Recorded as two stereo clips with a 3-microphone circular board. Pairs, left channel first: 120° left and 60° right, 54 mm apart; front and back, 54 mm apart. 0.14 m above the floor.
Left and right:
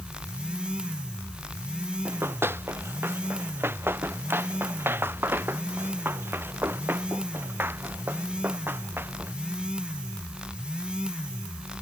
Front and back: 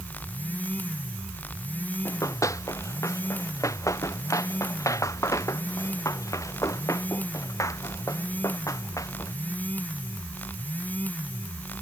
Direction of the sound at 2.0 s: 15° right.